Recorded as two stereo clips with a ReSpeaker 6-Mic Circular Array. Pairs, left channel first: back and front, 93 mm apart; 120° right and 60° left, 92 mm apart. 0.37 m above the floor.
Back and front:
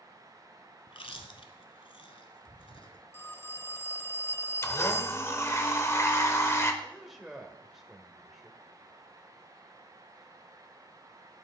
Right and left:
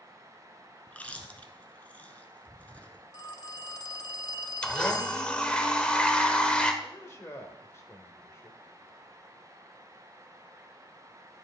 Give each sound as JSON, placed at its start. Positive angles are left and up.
{"t": 0.9, "sound": "chewing", "azimuth_deg": 165, "distance_m": 0.9}
{"t": 3.1, "sound": "a phone ringing", "azimuth_deg": -130, "distance_m": 0.7}
{"t": 4.6, "sound": "a blender", "azimuth_deg": 170, "distance_m": 0.9}
{"t": 6.8, "sound": "a man speaking", "azimuth_deg": -85, "distance_m": 1.1}